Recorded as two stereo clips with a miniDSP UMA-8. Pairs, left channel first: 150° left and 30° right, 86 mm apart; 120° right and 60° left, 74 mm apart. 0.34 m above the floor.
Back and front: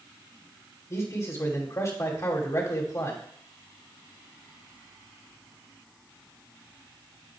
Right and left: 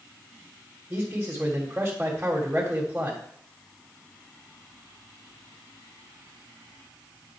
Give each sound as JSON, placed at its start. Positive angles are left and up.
{"t": 0.9, "sound": "a man speaking", "azimuth_deg": 120, "distance_m": 1.7}